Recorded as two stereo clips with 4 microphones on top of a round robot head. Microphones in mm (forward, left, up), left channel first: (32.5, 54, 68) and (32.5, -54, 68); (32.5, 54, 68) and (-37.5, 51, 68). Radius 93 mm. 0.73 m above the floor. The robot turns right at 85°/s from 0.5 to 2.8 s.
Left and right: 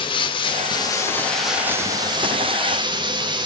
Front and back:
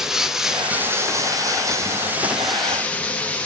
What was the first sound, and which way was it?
Running water, 100° left.